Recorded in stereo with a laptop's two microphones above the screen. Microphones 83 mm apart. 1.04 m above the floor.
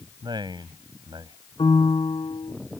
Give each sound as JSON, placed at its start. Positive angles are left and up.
{"t": 0.2, "sound": "a man speaking", "side_deg": -65}
{"t": 1.6, "sound": "a piano", "side_deg": 80}